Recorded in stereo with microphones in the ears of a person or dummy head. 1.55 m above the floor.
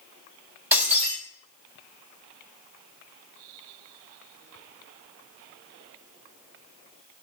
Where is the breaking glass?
10° right (ahead or behind), 1.7 m.